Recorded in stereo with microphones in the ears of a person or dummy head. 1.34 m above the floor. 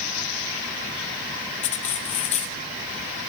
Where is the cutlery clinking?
35° left (ahead or behind), 0.9 m.